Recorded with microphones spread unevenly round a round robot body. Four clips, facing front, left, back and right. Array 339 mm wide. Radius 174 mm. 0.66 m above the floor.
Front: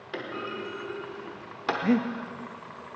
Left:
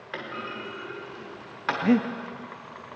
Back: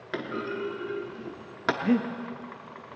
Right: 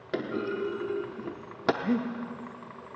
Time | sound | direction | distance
0.1 | a clunk | 105° right | 0.7 m
1.8 | breathing | 80° left | 0.6 m